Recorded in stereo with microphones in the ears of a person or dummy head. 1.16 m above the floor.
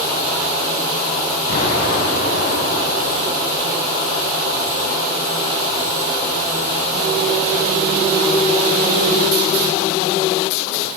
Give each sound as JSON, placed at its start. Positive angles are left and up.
{"t": 1.5, "sound": "an explosion", "side_deg": 60, "distance_m": 4.5}